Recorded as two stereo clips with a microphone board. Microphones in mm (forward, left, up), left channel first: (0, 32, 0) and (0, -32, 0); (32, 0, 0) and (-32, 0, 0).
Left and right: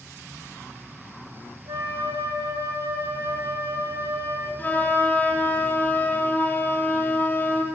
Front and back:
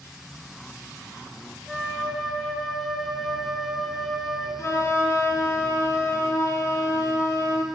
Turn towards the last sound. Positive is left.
turn(degrees=35)